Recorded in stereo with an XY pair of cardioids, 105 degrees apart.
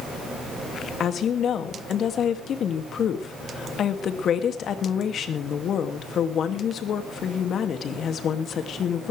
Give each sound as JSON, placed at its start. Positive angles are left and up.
{"t": 1.0, "sound": "a woman speaking", "azimuth_deg": 60, "distance_m": 2.5}